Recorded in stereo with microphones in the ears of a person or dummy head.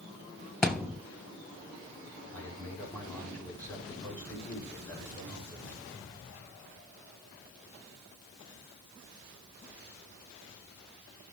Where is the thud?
5° left (ahead or behind), 1.7 m.